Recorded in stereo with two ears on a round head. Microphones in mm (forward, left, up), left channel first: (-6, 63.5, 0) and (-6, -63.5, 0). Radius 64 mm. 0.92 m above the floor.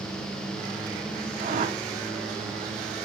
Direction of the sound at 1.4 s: 50° right (ahead or behind).